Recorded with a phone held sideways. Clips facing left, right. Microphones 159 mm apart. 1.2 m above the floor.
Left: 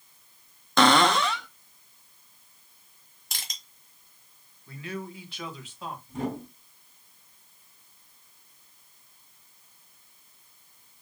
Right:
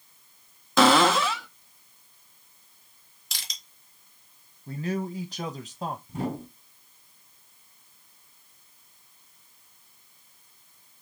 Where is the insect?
I don't hear an insect.